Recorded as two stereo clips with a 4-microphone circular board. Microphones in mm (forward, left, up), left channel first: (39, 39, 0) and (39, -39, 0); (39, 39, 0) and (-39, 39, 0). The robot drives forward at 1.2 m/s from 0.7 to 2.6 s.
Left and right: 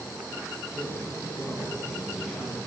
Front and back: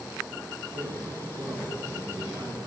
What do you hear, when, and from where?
0.7 s a man speaking: 170° right, 4 m; by 2.6 s 175° right, 6 m